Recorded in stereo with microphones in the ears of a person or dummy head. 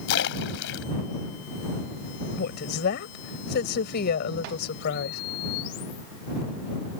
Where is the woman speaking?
50° left (ahead or behind).